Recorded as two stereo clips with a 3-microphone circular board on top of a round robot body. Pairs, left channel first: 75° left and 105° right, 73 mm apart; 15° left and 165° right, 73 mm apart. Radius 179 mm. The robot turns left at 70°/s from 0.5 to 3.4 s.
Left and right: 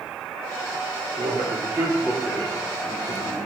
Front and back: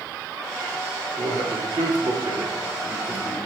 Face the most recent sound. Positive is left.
turn(degrees=85)